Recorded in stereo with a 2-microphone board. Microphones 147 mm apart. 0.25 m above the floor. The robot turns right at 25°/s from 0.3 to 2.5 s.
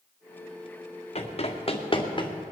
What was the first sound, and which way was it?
Running footsteps, 45° left (ahead or behind).